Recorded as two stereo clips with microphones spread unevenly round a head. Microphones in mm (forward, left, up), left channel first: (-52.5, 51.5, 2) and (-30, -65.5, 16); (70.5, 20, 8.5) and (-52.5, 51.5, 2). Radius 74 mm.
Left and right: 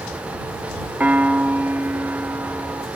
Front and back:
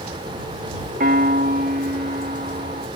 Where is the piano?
155° right.